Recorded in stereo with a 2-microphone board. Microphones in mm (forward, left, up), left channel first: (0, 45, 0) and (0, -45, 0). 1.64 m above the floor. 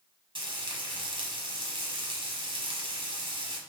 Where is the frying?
65° right (ahead or behind), 1.0 m.